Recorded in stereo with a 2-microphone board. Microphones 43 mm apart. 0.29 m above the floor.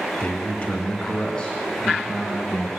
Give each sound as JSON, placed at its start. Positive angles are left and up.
{"t": 0.2, "sound": "a man speaking", "side_deg": 35, "distance_m": 1.4}